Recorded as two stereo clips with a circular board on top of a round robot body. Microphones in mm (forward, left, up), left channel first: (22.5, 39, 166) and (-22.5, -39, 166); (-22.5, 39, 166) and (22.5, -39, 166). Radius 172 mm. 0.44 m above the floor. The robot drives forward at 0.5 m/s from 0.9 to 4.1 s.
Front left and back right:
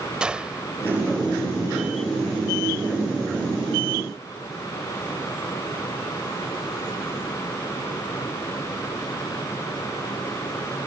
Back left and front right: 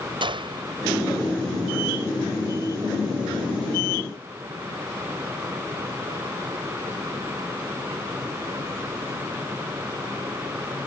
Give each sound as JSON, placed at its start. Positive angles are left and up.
{"t": 0.2, "sound": "a gunshot", "azimuth_deg": -40}